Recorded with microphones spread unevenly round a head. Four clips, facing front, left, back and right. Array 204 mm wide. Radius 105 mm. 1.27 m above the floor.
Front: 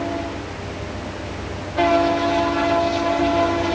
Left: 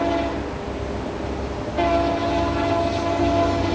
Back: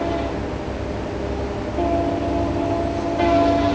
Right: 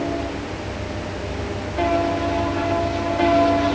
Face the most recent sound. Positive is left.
No sound to turn to.